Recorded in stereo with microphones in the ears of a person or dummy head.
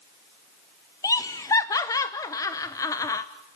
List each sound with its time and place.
1.0 s laughter: 10° left (ahead or behind), 0.6 m